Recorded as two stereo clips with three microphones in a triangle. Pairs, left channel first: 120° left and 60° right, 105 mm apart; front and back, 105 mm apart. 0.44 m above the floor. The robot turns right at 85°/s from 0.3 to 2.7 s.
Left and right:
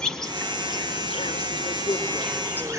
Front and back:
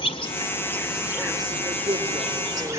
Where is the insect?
35° left, 1.7 m; by 2.8 s 120° right, 1.7 m.